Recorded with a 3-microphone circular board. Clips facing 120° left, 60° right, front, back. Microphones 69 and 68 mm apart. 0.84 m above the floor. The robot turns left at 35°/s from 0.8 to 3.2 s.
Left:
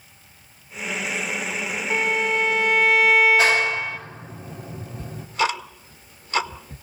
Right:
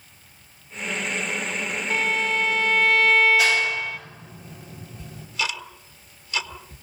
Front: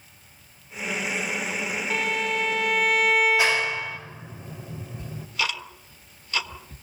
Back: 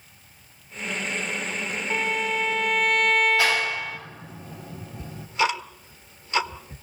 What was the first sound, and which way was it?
A violin, 115° left.